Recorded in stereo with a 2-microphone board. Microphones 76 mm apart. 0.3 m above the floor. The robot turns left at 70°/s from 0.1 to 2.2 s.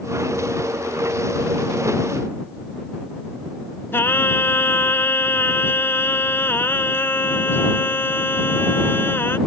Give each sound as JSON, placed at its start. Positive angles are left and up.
{"t": 3.9, "sound": "singing", "side_deg": 30}